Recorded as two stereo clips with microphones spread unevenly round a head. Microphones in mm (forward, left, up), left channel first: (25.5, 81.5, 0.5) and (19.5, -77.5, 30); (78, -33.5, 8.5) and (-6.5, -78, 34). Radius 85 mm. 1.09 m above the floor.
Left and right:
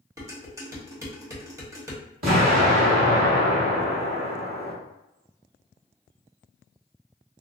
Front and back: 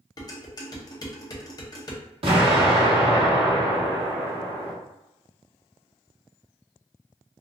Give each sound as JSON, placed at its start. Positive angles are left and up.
{"t": 0.2, "sound": "dishes clattering", "azimuth_deg": -25, "distance_m": 1.2}
{"t": 2.2, "sound": "an explosion", "azimuth_deg": -130, "distance_m": 1.5}